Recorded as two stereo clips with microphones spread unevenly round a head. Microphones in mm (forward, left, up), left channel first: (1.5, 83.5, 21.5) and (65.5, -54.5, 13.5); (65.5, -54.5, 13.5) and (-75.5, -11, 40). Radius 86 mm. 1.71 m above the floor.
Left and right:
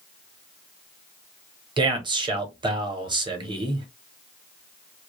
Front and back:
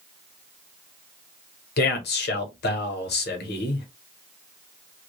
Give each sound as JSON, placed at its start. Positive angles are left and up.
{"t": 1.8, "sound": "a man speaking", "azimuth_deg": -5, "distance_m": 0.9}